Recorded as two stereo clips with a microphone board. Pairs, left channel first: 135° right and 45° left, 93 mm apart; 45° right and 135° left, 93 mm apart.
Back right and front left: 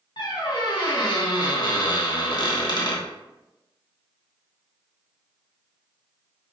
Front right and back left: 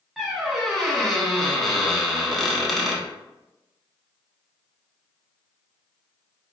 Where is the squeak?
135° right, 0.6 m.